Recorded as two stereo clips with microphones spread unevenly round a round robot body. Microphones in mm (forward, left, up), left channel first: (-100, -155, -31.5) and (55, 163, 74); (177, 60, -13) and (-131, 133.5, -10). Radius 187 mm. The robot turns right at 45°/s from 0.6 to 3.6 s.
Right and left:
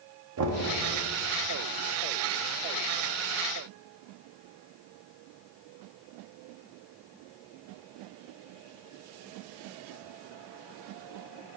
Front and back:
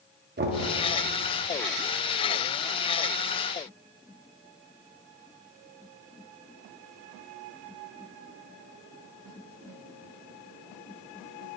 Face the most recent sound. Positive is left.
turn(degrees=-105)